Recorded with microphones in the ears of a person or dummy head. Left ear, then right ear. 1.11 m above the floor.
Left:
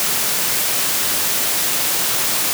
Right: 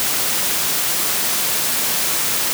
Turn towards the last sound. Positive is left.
No sound to turn to.